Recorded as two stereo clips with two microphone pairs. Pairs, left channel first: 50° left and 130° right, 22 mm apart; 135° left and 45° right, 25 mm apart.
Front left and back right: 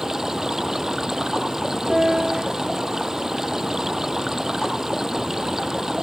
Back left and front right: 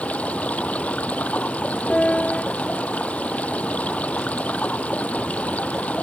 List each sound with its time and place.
0.0 s running water: 155° left
1.9 s a piano: 170° left